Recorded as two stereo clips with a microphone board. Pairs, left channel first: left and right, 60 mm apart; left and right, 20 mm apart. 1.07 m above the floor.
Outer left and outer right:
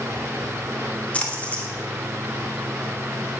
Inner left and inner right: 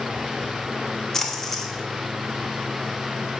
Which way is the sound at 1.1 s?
20° left (ahead or behind).